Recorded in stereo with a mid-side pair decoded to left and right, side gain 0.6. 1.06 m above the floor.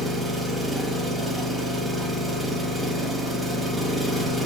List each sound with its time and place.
0.0 s an engine running: 20° right, 5.5 m